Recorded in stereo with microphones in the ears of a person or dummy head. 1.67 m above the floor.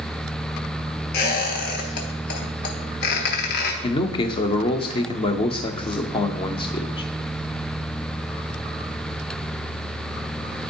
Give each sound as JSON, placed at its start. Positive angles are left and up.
{"t": 1.1, "sound": "a squeak", "side_deg": 60, "distance_m": 1.1}
{"t": 3.8, "sound": "a man speaking", "side_deg": 25, "distance_m": 0.5}